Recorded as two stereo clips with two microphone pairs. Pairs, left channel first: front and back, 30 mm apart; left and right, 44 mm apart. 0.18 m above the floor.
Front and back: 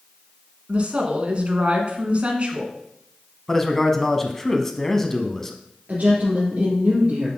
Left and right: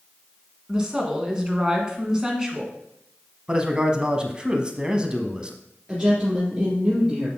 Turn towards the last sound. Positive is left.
turn(degrees=-145)